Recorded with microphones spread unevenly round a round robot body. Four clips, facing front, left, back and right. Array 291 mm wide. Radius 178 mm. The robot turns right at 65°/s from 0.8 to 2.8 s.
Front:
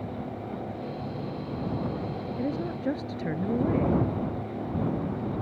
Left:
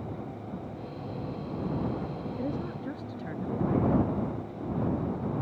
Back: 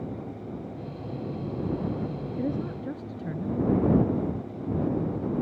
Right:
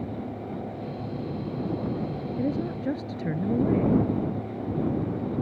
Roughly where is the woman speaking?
Behind right.